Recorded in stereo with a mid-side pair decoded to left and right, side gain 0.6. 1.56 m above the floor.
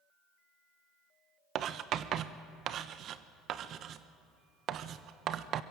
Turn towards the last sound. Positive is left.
turn(degrees=-55)